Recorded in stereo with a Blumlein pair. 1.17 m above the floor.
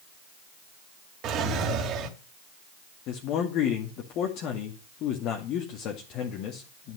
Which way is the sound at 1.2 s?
35° right.